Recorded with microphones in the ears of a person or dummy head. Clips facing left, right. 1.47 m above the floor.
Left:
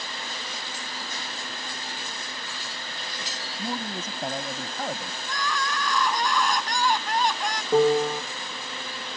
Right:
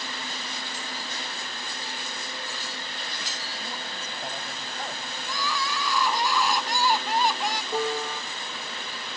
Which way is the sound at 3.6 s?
60° left (ahead or behind).